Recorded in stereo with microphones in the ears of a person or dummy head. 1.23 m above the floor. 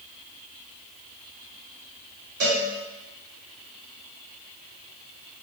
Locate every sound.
2.4 s a cowbell: 50° right (ahead or behind), 1.7 m